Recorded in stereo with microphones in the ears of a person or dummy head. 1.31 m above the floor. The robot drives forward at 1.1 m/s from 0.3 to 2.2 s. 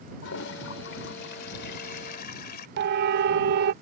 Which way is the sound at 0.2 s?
75° left (ahead or behind).